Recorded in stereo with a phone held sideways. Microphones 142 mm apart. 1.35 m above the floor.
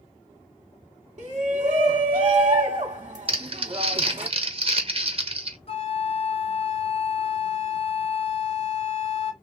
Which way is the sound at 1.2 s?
45° right (ahead or behind).